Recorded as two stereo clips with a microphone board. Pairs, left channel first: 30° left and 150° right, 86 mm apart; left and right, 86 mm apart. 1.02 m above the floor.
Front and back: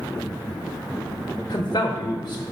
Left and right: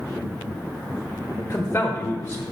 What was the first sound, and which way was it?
A man speaking, 30° left.